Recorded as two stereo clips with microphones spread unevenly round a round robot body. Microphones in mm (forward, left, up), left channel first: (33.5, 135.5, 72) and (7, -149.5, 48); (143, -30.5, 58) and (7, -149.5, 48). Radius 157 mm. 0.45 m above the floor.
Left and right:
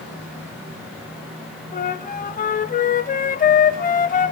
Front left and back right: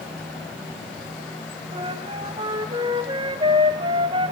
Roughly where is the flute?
Behind left.